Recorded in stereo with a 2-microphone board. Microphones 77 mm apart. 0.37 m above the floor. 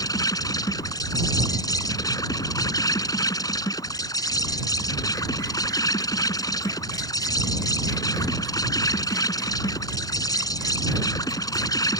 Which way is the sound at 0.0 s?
55° left (ahead or behind).